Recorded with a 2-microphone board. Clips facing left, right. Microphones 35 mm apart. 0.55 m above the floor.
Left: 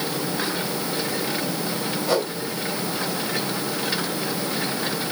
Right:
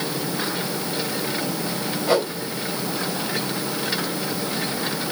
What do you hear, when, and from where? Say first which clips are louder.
2.1 s a whoosh: right 3 dB; 25° right (ahead or behind), 3.5 m